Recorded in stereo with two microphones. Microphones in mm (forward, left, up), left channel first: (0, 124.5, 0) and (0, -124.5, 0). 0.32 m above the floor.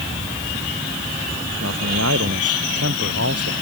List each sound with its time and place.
1.6 s a man speaking: 75° right (ahead or behind); by 3.5 s 70° right (ahead or behind)